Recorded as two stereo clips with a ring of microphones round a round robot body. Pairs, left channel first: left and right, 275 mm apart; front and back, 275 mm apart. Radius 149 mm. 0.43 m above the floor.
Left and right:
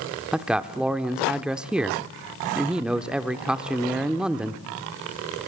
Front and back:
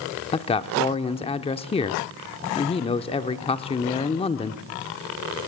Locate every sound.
0.3 s a man speaking: 10° right, 0.7 m